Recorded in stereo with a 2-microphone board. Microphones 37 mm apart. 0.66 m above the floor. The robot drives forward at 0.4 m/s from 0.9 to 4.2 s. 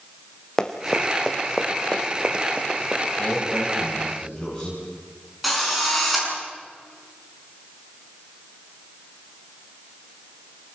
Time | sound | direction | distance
0.6 | running footsteps | 20° left (ahead or behind) | 1.8 m
3.2 | a man speaking | 15° left (ahead or behind) | 5 m
5.4 | a drill | centre (ahead or behind) | 6.5 m